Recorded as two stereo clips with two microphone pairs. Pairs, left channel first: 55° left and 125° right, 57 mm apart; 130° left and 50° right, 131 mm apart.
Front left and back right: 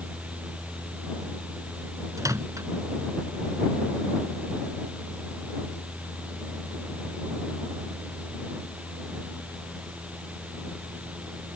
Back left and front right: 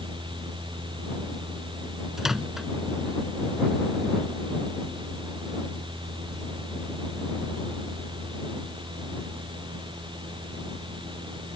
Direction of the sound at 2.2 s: 135° right.